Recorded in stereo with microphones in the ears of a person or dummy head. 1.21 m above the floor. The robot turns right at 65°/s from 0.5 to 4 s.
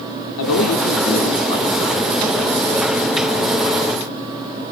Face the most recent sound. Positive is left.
turn(degrees=-50)